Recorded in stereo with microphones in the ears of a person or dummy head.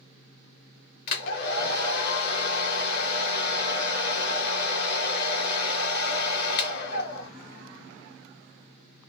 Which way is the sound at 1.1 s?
60° left (ahead or behind).